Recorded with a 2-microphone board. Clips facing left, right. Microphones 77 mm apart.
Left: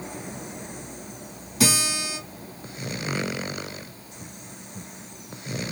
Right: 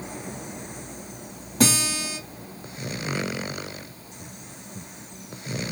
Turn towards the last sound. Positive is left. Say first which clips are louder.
# right 2 dB
turn(degrees=-45)  # may be behind; listen again after turning